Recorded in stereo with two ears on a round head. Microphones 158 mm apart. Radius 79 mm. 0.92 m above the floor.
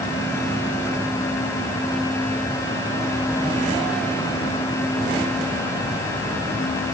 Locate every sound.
Only background noise.